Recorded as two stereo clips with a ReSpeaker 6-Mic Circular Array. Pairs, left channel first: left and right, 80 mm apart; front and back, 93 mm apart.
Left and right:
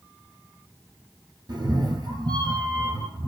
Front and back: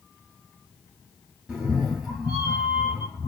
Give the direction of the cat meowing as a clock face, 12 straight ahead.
3 o'clock.